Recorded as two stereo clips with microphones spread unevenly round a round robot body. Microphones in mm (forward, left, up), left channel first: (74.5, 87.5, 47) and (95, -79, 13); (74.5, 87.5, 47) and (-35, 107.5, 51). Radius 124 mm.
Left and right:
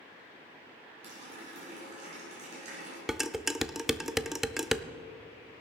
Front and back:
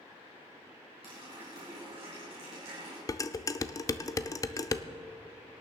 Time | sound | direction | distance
1.0 | a running tap | 140° right | 4 m
3.1 | dishes clattering | 20° right | 0.6 m